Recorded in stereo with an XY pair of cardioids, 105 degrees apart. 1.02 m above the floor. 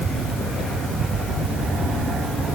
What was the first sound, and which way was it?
Only background noise.